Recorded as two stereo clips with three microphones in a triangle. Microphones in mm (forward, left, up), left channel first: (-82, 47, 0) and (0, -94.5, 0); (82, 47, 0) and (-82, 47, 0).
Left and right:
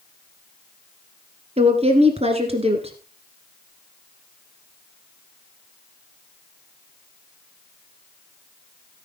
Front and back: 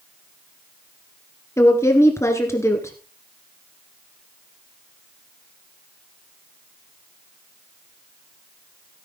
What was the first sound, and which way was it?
A woman speaking, 65° right.